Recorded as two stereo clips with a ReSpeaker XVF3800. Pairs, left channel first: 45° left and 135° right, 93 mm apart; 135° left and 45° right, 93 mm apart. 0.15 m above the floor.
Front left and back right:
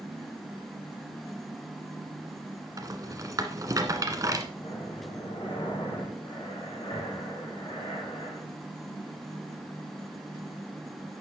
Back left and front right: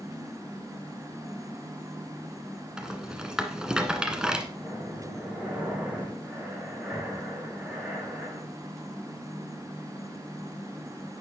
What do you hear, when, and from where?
2.8 s a rattle: 120° right, 1.4 m
4.6 s breathing: 25° left, 8 m